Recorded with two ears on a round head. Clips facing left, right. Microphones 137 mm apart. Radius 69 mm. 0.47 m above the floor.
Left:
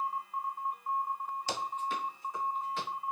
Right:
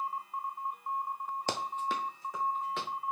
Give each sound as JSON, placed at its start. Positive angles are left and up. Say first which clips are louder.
{"t": 1.5, "sound": "running footsteps", "louder": "right 2 dB", "side_deg": -45, "distance_m": 0.5}